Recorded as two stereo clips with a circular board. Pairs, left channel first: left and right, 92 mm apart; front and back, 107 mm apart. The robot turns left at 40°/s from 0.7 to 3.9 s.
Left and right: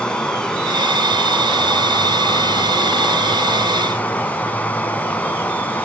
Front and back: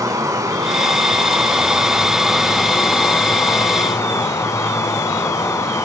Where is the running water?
160° left, 0.8 m; by 5.8 s 30° left, 0.8 m.